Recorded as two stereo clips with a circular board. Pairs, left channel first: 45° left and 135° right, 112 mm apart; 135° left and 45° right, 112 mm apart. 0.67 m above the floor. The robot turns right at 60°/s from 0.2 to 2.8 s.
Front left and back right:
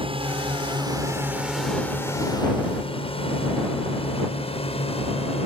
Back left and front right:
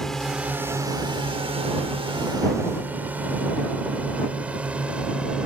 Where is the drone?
140° right; by 5.5 s 35° left.